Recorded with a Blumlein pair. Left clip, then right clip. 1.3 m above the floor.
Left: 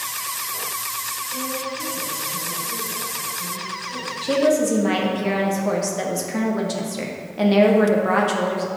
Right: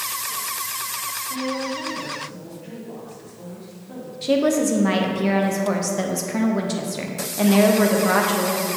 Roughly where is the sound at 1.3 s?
Ahead right.